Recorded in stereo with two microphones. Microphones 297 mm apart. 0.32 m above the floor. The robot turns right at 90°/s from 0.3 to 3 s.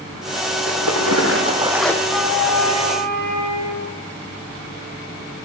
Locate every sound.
0.7 s a splash: 105° right, 3 m; by 1.9 s 10° left, 3 m
2.0 s a flute: 115° right, 10 m; by 4.0 s 25° right, 10 m